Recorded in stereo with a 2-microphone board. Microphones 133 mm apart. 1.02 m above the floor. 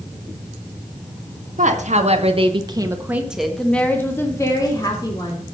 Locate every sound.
1.6 s a woman speaking: 70° right (ahead or behind), 1.6 m; by 5.5 s 35° left (ahead or behind), 2.5 m